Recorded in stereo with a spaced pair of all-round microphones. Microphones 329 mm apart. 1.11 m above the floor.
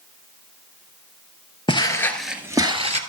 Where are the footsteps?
15° left (ahead or behind), 1.2 m; by 3.0 s 20° right (ahead or behind), 1.3 m.